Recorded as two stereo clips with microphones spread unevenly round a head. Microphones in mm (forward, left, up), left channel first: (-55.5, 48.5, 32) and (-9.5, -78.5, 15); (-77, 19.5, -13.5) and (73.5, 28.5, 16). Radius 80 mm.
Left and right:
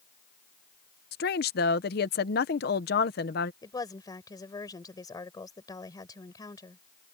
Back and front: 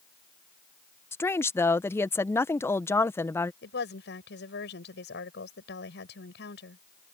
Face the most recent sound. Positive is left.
turn(degrees=175)